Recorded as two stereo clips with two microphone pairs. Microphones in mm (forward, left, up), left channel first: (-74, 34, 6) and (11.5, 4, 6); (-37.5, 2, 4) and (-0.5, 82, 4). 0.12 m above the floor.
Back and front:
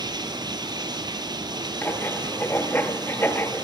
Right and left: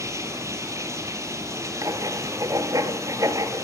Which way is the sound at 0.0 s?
15° left.